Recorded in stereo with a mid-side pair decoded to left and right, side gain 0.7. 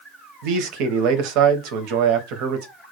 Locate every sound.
0.4 s a man speaking: 65° right, 0.6 m